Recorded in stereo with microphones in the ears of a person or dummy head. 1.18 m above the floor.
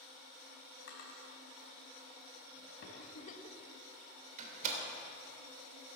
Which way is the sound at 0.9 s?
70° left (ahead or behind).